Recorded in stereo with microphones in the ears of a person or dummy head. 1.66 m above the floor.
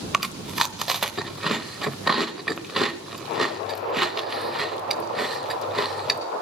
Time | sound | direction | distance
0.1 | chewing | centre (ahead or behind) | 0.7 m